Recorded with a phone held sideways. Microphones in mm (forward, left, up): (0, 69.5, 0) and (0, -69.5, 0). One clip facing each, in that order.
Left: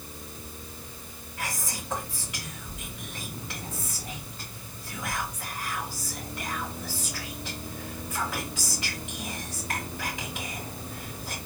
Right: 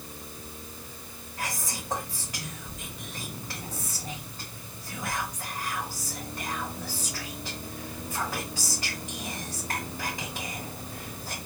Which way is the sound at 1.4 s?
40° right (ahead or behind).